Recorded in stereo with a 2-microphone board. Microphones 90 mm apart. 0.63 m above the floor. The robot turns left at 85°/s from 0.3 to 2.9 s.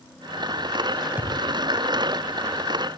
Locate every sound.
1.2 s a thud: 20° right (ahead or behind), 7.5 m; by 1.4 s 45° right (ahead or behind), 7.5 m